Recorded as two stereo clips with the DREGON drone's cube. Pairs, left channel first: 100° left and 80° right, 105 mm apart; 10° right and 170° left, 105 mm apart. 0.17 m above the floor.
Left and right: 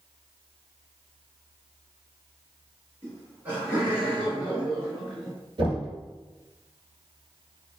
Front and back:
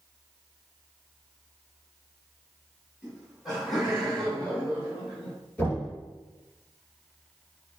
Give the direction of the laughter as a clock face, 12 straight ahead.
4 o'clock.